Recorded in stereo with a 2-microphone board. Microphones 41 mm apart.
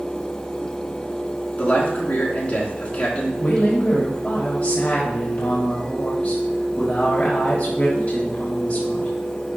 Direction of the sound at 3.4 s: 35° left (ahead or behind).